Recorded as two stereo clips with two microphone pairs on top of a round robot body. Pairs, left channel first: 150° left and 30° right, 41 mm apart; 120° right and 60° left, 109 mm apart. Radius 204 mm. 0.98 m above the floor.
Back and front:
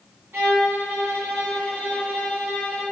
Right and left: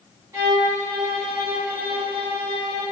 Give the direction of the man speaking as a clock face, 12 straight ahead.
No man speaking in this recording.